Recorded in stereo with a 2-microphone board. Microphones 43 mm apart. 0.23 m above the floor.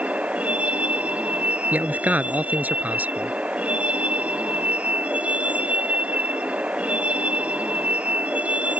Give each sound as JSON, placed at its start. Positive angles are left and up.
{"t": 0.0, "sound": "a vehicle", "side_deg": -30}
{"t": 1.7, "sound": "a man speaking", "side_deg": -40}